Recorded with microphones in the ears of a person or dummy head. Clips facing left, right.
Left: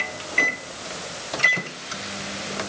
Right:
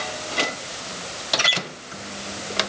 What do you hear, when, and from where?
Only background noise.